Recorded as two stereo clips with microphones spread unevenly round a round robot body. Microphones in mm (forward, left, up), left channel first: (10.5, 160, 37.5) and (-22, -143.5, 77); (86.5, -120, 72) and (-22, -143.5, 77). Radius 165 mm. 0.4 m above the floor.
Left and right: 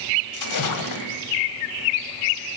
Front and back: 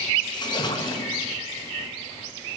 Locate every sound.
0.3 s a splash: 70° left, 1.4 m